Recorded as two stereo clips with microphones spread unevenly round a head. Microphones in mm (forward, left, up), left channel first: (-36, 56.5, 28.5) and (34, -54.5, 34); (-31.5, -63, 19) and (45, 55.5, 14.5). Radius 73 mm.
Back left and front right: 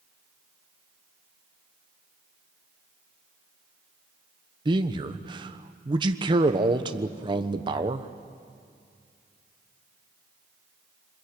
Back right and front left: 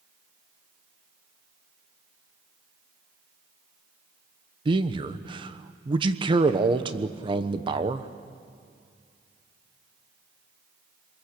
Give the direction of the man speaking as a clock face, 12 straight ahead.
12 o'clock.